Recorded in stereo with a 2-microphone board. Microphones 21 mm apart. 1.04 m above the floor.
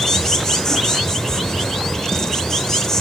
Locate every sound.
0.0 s an insect: 30° left (ahead or behind), 0.8 m